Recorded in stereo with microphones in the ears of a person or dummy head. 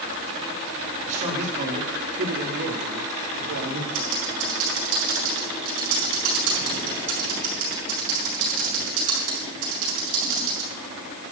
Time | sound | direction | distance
1.1 | a man speaking | 45° right (ahead or behind) | 4 m
3.9 | typing on a keyboard | 80° right | 5 m